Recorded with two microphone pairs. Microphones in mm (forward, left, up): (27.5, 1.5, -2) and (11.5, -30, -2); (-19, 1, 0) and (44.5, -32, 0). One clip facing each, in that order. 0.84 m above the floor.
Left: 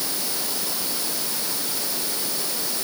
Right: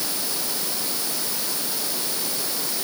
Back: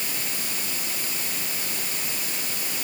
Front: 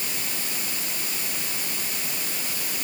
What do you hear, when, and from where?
Only background noise.